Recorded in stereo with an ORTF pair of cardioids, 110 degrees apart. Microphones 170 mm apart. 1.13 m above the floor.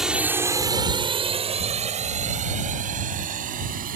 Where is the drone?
5° right; by 4.0 s 55° right.